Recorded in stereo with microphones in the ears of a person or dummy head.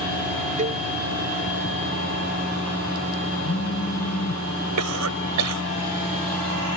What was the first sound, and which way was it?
A cowbell, 30° right (ahead or behind).